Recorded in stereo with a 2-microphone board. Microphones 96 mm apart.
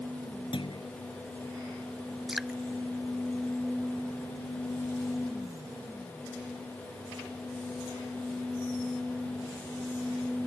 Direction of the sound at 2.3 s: 5° right (ahead or behind).